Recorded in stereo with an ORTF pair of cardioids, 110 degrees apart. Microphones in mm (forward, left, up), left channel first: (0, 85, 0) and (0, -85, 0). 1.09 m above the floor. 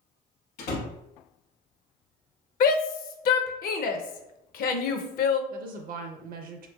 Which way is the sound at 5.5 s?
60° right.